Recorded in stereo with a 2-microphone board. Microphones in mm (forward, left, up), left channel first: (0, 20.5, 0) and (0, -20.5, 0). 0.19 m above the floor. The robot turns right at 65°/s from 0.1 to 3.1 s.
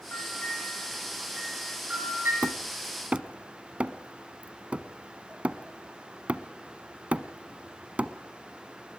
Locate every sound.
0.1 s a bell: 70° left (ahead or behind), 8 m; by 2.3 s 70° right (ahead or behind), 8 m
2.4 s hammering: 50° right (ahead or behind), 0.9 m; by 8.1 s 35° right (ahead or behind), 0.9 m